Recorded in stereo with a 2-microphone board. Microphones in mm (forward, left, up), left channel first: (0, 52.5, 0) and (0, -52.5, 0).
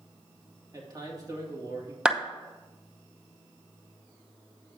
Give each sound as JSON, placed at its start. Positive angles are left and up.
{"t": 0.7, "sound": "a man speaking", "side_deg": -35, "distance_m": 2.5}
{"t": 2.0, "sound": "a clap", "side_deg": -10, "distance_m": 0.7}